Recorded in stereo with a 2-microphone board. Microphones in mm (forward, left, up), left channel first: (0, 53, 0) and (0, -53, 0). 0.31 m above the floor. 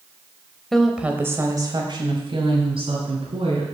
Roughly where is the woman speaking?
Centre.